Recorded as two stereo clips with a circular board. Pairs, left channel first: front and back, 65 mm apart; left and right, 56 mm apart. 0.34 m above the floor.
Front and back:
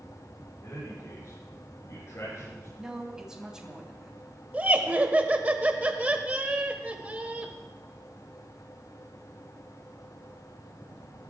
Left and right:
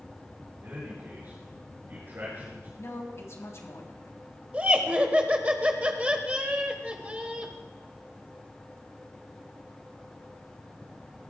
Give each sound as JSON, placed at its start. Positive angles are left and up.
{"t": 0.6, "sound": "a man speaking", "azimuth_deg": -40, "distance_m": 6.5}
{"t": 2.8, "sound": "a man speaking", "azimuth_deg": 100, "distance_m": 2.5}
{"t": 4.5, "sound": "laughter", "azimuth_deg": -135, "distance_m": 1.6}